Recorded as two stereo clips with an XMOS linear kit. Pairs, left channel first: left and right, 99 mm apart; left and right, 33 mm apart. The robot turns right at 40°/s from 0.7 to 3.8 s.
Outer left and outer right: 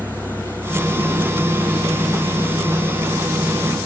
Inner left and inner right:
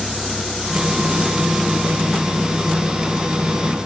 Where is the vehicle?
15° right (ahead or behind); by 3.9 s 40° left (ahead or behind).